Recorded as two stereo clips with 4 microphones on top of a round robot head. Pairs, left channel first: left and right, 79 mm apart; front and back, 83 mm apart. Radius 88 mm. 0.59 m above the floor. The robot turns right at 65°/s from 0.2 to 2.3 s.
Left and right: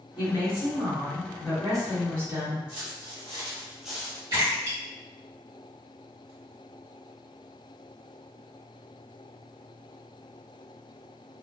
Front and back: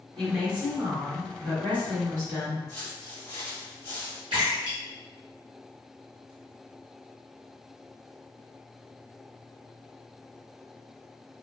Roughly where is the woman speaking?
Left.